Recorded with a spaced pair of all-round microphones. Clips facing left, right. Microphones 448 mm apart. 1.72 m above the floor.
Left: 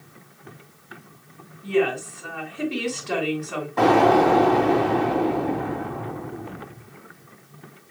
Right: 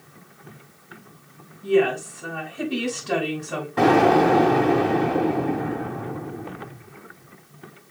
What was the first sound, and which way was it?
A woman speaking, 50° right (ahead or behind).